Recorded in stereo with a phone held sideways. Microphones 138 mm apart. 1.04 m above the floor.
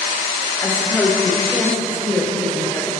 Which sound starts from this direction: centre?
A woman speaking, at 0.6 s.